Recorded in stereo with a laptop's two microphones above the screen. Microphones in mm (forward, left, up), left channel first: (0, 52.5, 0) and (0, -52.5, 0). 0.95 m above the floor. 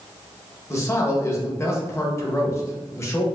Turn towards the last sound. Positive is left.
turn(degrees=25)  # may be behind; listen again after turning